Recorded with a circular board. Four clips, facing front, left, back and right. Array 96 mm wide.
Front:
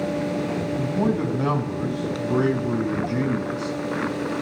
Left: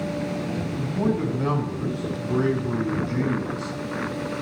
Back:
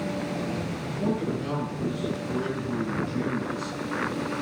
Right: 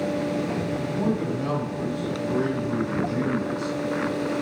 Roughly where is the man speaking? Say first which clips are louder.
Left 4 dB, front 6 dB; ahead.